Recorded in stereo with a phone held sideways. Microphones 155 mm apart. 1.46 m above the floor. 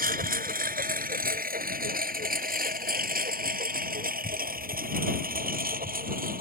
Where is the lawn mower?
70° right (ahead or behind).